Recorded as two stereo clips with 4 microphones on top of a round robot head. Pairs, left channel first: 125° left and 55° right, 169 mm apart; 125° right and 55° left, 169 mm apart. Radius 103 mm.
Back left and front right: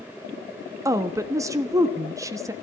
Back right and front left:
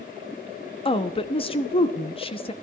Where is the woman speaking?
110° right, 1.1 m.